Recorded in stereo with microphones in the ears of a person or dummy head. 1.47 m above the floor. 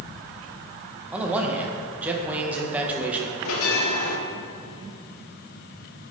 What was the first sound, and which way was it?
A man speaking, 5° right (ahead or behind).